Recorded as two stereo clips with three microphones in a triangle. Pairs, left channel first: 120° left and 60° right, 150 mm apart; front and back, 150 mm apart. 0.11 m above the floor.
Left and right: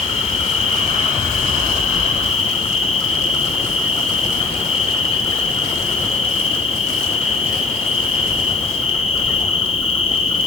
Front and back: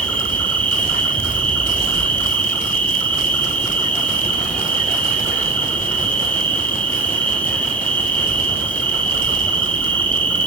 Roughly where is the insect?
Left.